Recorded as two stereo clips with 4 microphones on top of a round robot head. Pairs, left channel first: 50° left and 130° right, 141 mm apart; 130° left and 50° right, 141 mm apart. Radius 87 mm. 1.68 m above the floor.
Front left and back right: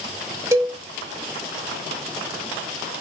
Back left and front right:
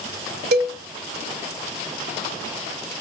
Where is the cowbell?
55° right, 0.7 m.